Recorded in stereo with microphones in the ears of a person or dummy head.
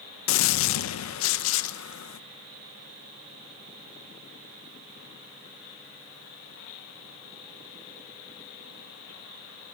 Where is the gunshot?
70° left (ahead or behind), 0.7 m.